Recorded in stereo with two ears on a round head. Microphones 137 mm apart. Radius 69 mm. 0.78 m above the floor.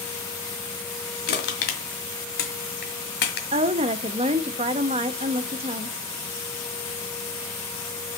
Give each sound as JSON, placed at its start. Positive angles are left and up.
{"t": 1.3, "sound": "crushing", "side_deg": 80, "distance_m": 1.7}
{"t": 3.5, "sound": "a woman speaking", "side_deg": -35, "distance_m": 0.7}